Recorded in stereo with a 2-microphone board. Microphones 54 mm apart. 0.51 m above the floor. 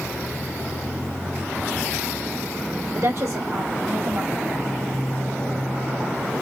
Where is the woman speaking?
65° right (ahead or behind), 1.6 m.